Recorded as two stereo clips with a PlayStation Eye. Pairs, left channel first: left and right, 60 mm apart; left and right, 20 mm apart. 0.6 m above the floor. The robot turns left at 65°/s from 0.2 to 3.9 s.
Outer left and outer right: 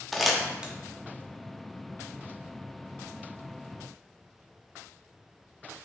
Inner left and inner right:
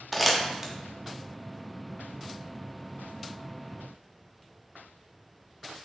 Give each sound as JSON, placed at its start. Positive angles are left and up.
{"t": 0.1, "sound": "crumpling", "side_deg": 0, "distance_m": 0.6}